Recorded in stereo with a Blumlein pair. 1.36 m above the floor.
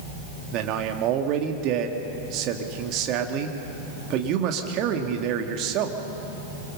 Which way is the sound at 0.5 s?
40° right.